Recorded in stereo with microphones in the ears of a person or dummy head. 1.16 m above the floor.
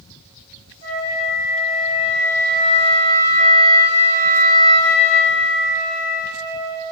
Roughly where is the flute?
Right.